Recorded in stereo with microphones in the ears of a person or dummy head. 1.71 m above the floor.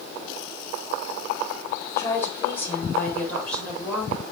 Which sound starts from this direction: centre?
A woman speaking, at 2.0 s.